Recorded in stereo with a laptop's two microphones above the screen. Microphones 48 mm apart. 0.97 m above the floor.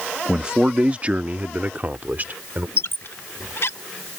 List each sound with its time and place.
0.3 s a man speaking: 15° right (ahead or behind); by 2.7 s 40° right (ahead or behind)
2.8 s a squeak: 60° left (ahead or behind)